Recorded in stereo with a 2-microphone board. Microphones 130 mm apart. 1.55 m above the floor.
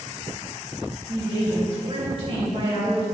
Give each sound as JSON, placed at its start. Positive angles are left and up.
{"t": 1.1, "sound": "a woman speaking", "side_deg": -50, "distance_m": 2.5}